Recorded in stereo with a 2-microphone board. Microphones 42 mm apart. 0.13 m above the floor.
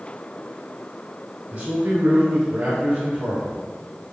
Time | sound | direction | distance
1.5 | a man speaking | 30° right (ahead or behind) | 1.3 m